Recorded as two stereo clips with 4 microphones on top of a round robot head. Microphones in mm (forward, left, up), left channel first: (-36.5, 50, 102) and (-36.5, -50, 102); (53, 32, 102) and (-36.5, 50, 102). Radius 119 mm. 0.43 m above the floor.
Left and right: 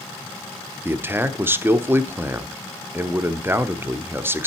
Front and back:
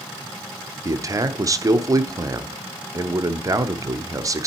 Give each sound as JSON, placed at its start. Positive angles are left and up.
{"t": 0.8, "sound": "a man speaking", "azimuth_deg": -150, "distance_m": 1.0}